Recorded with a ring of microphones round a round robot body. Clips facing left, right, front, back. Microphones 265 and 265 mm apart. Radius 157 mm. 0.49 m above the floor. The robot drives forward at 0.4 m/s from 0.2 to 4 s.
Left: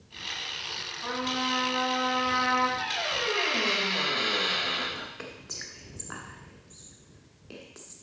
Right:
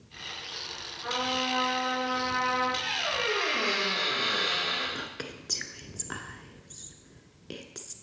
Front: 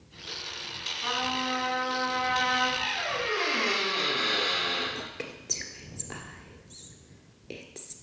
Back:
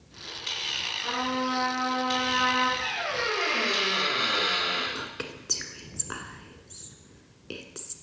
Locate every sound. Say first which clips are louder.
1.0 s a trumpet: left 1 dB, back 4 dB; 55° left, 5 m; by 2.7 s 60° left, 4.5 m
2.8 s a squeak: even, back 1 dB; 75° left, 5 m; by 4.8 s 80° left, 5 m
5.0 s whispering: right 2 dB, back 1 dB; 115° right, 1.2 m